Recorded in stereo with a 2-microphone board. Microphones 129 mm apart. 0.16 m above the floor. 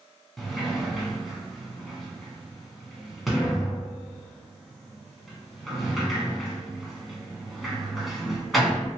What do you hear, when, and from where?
0.4 s a sliding door: centre (ahead or behind), 0.8 m